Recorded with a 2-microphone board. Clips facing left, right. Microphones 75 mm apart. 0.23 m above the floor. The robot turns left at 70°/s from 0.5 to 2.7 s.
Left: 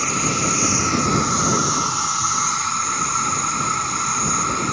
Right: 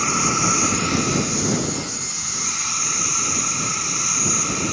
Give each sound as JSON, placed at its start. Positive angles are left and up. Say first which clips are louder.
{"t": 0.0, "sound": "an insect", "louder": "right 1 dB", "azimuth_deg": -170}